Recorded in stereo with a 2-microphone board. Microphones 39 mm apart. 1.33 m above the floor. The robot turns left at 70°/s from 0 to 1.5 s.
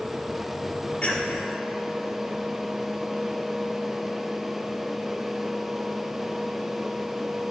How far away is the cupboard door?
I don't hear a cupboard door.